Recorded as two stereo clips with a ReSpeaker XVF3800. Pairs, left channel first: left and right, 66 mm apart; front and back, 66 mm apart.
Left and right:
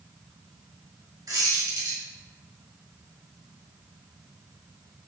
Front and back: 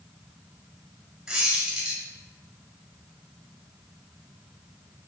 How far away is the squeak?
About 2.5 m.